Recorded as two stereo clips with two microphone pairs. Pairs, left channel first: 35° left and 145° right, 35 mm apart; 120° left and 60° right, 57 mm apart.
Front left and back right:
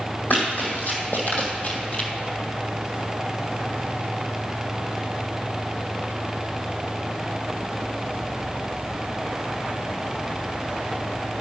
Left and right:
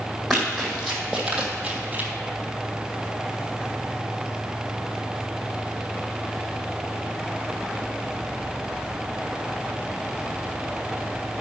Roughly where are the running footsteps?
Ahead left.